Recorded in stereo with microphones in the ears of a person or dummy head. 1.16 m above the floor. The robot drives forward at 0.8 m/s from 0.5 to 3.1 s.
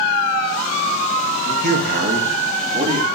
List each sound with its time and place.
1.4 s a man speaking: 60° right (ahead or behind), 1.2 m; by 3.1 s 30° right (ahead or behind), 2 m